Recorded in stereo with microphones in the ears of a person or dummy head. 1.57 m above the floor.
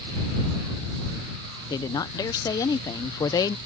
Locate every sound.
1.7 s a woman speaking: 20° left (ahead or behind)